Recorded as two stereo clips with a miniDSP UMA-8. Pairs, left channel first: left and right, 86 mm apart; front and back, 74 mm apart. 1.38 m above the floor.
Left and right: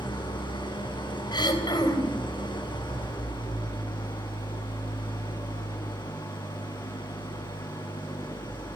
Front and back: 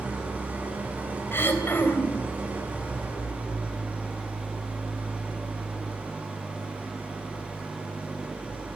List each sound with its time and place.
0.0 s an engine running: 110° left, 6 m
1.3 s throat clearing: 60° left, 4 m